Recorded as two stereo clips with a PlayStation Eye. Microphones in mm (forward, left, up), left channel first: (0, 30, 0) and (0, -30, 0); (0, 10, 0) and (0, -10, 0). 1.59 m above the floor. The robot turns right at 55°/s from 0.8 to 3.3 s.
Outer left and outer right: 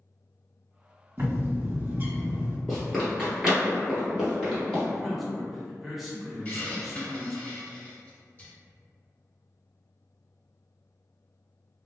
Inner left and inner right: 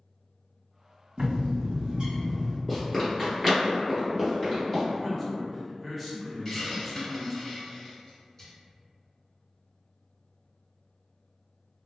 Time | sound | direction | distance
1.2 | a bird | 115° right | 1.9 m
2.7 | running footsteps | 5° left (ahead or behind) | 1.7 m
4.9 | a man speaking | centre (ahead or behind) | 0.9 m
6.5 | a hiss | 25° left (ahead or behind) | 1.2 m